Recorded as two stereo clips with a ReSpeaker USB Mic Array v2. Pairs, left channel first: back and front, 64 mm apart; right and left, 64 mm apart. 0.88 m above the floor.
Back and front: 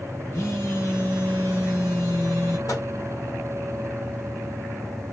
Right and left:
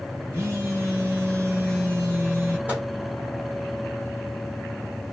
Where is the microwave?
155° left, 1.9 m.